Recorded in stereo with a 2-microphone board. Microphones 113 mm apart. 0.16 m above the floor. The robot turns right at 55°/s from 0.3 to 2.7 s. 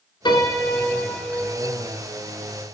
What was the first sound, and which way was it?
A piano, 110° left.